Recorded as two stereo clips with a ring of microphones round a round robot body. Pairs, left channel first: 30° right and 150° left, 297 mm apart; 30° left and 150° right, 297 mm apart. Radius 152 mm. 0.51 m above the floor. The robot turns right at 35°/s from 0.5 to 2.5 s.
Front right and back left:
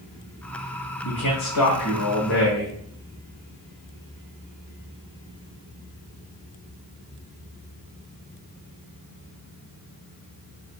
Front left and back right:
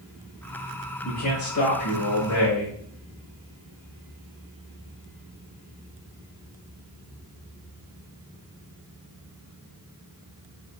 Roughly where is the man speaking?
Ahead right.